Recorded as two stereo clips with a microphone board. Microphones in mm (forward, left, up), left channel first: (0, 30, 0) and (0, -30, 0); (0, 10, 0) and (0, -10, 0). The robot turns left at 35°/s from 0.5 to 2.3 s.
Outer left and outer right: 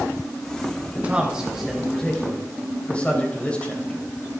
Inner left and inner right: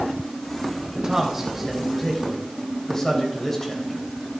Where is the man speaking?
155° right, 3.5 m; by 4.0 s 160° left, 3.5 m.